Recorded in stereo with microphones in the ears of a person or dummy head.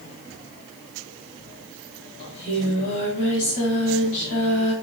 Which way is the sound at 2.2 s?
45° left (ahead or behind).